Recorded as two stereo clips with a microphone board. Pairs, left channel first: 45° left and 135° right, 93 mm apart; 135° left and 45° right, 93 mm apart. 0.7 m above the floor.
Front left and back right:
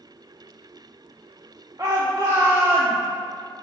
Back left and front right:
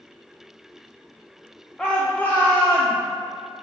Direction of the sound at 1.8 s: 150° right.